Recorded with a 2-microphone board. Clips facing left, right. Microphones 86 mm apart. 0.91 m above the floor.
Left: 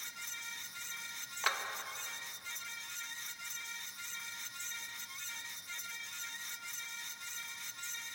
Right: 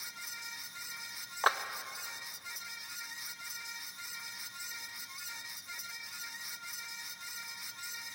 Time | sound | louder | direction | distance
1.4 | a clap | right 6 dB | 35° right (ahead or behind) | 0.6 m